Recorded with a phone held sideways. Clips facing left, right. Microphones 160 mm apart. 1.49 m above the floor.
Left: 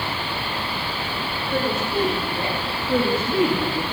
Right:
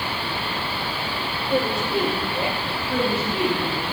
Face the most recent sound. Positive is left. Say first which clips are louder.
# left 3 dB
turn(degrees=30)  # may be behind; listen again after turning